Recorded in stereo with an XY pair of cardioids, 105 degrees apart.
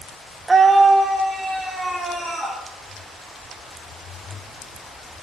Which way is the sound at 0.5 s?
25° right.